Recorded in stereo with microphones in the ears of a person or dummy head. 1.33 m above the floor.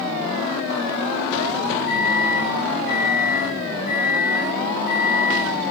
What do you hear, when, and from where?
1.9 s a microwave: 65° right (ahead or behind), 1.3 m